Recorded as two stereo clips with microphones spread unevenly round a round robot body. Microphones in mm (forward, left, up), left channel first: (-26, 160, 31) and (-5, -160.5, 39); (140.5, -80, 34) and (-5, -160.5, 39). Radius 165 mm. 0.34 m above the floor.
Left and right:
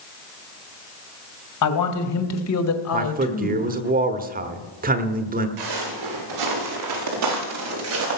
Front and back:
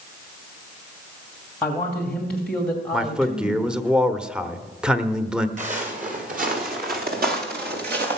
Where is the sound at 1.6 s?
110° left, 2.5 m; by 3.9 s 120° left, 1.5 m.